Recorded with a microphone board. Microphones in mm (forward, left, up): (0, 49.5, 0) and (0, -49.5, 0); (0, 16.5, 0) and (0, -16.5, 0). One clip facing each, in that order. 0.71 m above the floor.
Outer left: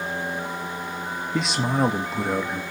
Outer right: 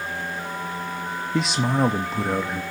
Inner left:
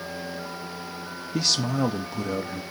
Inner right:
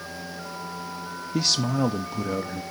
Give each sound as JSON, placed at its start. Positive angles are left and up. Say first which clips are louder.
{"t": 1.3, "sound": "a man speaking", "louder": "outer right 1 dB, inner right 1 dB", "side_deg": 0, "distance_m": 0.5}